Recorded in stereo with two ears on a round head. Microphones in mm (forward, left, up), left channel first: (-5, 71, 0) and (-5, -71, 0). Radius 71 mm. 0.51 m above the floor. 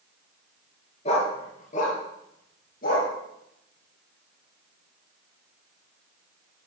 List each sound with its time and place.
1.1 s a dog barking: 40° left (ahead or behind), 1.8 m; by 3.1 s 60° left (ahead or behind), 3.5 m